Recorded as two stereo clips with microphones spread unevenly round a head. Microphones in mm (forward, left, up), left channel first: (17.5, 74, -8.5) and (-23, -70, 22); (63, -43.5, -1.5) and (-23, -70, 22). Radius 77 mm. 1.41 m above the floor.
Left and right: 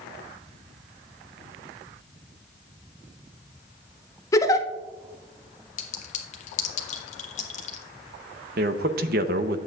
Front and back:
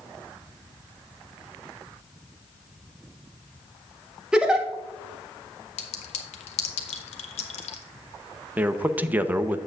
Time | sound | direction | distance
4.3 | a giggle | 145° left | 0.6 m
5.8 | a clink | 25° left | 1.0 m
8.6 | a man speaking | 100° right | 0.7 m